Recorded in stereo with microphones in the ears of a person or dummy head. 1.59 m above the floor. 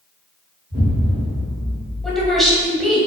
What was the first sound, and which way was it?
An explosion, 40° right (ahead or behind).